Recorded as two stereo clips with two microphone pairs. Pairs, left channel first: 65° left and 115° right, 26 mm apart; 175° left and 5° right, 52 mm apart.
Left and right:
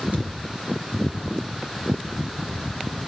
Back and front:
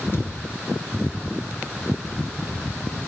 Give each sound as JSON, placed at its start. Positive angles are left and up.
{"t": 0.1, "sound": "a thud", "azimuth_deg": -140, "distance_m": 3.0}